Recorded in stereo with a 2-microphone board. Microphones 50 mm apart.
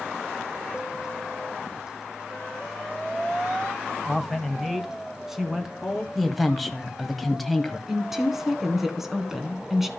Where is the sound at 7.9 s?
5° right (ahead or behind), 1.8 m.